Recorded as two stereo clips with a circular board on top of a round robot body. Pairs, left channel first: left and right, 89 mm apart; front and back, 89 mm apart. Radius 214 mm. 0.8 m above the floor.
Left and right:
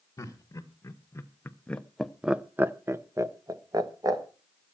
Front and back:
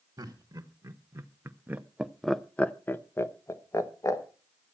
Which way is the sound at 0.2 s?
135° left.